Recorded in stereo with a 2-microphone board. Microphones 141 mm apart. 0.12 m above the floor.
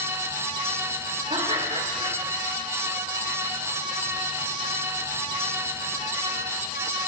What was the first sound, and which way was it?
Laughter, 45° right (ahead or behind).